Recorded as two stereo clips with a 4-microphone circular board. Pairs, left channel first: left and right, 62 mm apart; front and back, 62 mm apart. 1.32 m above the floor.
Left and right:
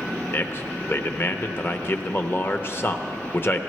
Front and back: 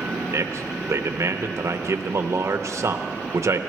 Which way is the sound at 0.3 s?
140° left.